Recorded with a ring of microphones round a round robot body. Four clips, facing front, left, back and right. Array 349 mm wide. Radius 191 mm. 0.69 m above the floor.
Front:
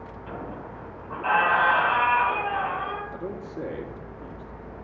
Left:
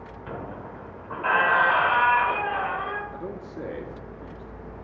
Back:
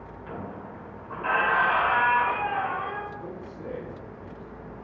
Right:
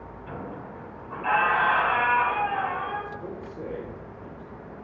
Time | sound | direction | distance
0.3 | a squeak | 95° left | 2.5 m
3.1 | a man speaking | 50° left | 1.8 m